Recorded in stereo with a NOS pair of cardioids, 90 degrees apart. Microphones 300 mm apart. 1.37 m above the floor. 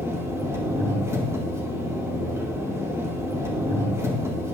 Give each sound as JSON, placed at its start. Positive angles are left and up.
{"t": 0.0, "sound": "an engine running", "azimuth_deg": -10, "distance_m": 2.0}